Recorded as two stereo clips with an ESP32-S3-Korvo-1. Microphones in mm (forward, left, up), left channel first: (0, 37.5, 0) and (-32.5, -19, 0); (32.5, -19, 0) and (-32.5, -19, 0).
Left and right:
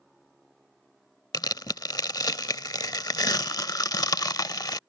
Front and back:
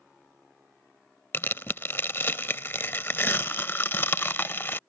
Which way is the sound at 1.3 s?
50° left.